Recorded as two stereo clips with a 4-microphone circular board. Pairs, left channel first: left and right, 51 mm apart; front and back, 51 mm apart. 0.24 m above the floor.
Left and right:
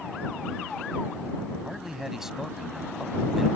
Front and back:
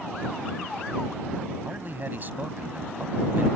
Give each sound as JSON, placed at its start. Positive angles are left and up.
{"t": 1.6, "sound": "a man speaking", "azimuth_deg": -165}